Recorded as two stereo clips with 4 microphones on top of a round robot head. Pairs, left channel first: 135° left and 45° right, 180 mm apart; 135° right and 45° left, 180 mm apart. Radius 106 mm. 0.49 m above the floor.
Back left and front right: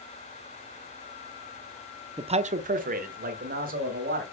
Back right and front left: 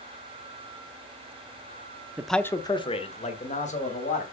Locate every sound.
2.2 s a man speaking: 25° right, 0.8 m; by 4.2 s 90° right, 3 m